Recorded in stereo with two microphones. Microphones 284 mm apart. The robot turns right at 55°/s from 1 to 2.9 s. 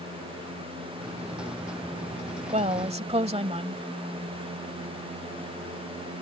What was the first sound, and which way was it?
A woman speaking, 25° right (ahead or behind).